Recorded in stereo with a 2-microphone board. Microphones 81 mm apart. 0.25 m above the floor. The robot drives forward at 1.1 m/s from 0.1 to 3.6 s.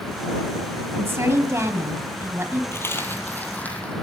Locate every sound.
1.0 s a woman speaking: 30° right (ahead or behind), 1.8 m
2.7 s a dropped coin: 35° left (ahead or behind), 1.5 m; by 3.9 s 20° left (ahead or behind), 2.5 m